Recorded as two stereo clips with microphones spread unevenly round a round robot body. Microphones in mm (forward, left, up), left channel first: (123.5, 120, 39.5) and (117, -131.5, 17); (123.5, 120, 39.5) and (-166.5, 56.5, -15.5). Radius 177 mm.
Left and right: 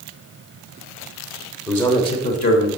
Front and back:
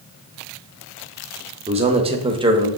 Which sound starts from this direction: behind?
A man speaking, at 1.7 s.